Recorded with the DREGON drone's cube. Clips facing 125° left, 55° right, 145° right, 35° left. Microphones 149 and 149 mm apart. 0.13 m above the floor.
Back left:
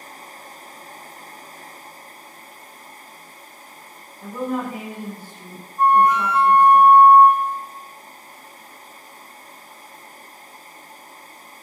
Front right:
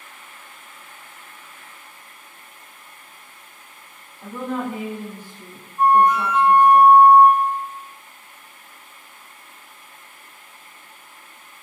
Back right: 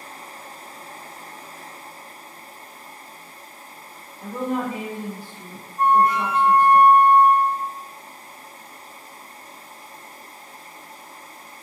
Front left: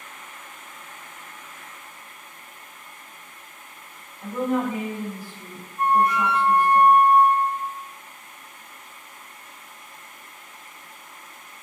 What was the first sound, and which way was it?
A woman speaking, 160° right.